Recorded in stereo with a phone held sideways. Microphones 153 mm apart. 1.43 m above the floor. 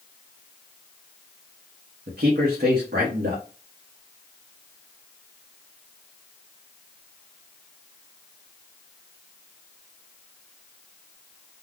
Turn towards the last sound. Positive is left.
turn(degrees=-75)  # may be behind; listen again after turning